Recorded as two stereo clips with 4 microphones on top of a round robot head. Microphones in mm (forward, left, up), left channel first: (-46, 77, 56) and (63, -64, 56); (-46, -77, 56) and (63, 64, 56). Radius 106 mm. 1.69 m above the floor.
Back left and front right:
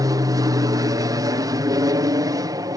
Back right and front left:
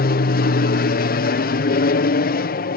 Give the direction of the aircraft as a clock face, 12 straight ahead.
4 o'clock.